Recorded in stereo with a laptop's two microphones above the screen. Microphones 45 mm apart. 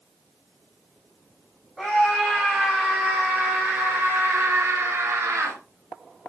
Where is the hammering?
No hammering in this recording.